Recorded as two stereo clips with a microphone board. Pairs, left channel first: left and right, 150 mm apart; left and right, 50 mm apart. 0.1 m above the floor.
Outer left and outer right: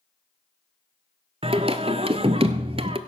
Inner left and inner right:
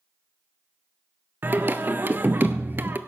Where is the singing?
40° right (ahead or behind), 0.6 m.